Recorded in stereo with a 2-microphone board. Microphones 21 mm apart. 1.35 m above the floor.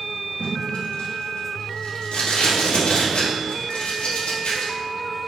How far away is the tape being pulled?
About 1.9 m.